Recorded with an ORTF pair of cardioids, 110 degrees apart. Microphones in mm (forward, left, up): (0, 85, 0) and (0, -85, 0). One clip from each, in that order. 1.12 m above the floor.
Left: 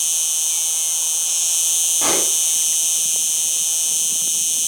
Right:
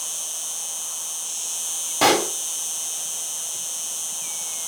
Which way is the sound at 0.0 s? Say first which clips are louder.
Left 9 dB; 50° left.